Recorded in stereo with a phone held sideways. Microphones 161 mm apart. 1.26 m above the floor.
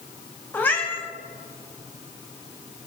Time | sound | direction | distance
0.5 | a cat meowing | 10° left (ahead or behind) | 1.0 m